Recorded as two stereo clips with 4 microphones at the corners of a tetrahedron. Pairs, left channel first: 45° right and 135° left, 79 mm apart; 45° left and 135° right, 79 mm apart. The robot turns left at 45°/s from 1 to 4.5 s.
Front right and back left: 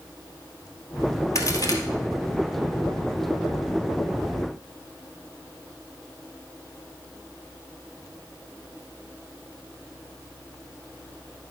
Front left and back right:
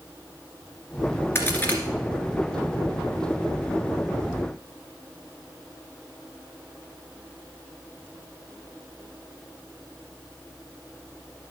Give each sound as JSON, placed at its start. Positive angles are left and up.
{"t": 1.4, "sound": "a crack", "azimuth_deg": -5, "distance_m": 1.9}